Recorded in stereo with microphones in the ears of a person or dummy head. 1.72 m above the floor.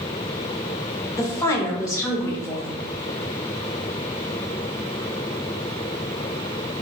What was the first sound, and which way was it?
A woman speaking, 20° left (ahead or behind).